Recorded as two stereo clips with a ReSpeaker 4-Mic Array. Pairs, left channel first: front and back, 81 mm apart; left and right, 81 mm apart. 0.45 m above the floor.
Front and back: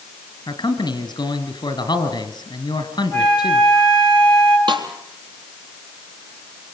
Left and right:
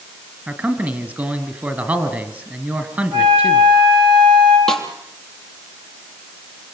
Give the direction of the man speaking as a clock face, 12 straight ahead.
1 o'clock.